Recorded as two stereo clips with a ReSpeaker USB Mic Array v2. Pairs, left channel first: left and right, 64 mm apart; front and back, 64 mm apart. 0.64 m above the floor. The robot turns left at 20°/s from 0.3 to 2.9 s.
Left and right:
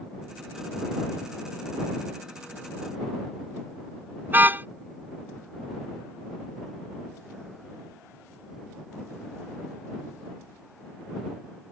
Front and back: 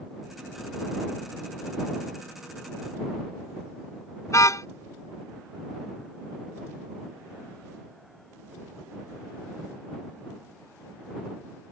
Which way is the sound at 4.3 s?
30° right.